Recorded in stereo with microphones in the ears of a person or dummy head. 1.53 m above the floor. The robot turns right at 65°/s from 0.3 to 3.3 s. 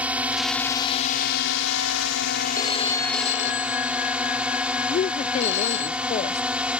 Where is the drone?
10° right; by 6.8 s 175° right.